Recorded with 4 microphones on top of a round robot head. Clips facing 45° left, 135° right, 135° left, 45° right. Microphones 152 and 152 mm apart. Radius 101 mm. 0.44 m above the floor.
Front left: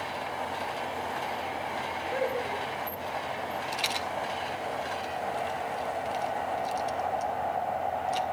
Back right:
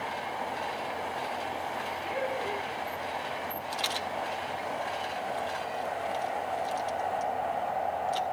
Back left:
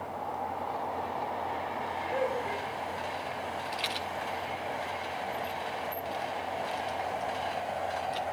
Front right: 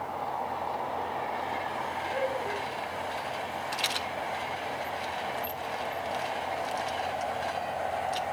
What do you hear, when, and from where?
2.0 s laughter: 85° left, 6 m
3.7 s a rattle: 25° right, 1.8 m